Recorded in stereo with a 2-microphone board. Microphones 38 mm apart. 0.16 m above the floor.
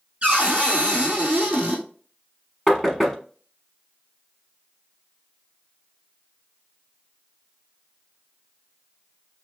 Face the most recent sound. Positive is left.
turn(degrees=5)  # may be behind; listen again after turning